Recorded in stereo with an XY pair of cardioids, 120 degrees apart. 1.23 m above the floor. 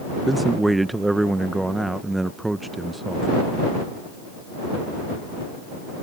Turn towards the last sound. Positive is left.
turn(degrees=-10)